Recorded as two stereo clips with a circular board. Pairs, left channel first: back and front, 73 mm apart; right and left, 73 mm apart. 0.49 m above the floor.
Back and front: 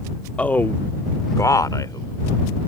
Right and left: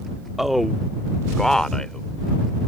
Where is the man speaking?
170° left; by 2.1 s 170° right.